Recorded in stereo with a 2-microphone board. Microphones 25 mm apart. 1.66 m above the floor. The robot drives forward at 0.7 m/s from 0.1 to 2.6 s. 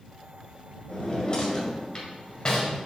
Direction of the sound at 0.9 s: 40° left (ahead or behind).